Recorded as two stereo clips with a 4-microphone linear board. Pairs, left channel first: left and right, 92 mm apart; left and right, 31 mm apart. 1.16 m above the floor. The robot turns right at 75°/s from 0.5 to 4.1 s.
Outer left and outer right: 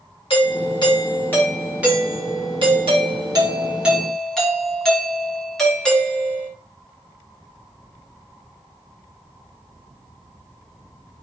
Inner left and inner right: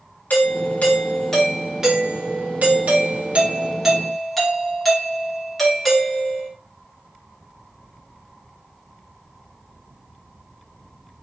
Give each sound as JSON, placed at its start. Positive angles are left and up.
{"t": 0.3, "sound": "a doorbell", "azimuth_deg": 100, "distance_m": 1.5}